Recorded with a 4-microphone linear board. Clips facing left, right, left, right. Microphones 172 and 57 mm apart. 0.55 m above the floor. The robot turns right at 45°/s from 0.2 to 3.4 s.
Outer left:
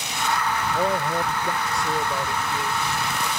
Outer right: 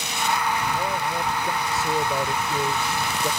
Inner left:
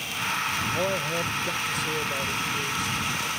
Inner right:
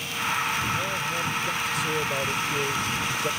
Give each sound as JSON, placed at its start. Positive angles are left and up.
{"t": 0.7, "sound": "a man speaking", "azimuth_deg": 135}